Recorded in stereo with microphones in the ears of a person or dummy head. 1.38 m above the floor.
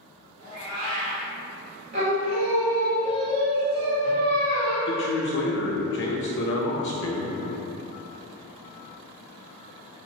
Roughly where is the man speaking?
Left.